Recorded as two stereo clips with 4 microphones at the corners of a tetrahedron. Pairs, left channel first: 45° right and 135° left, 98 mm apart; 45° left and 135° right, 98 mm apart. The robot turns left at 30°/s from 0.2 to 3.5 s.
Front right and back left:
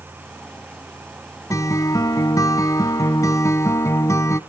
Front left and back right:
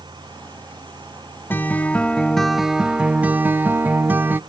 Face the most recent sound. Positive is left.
turn(degrees=-75)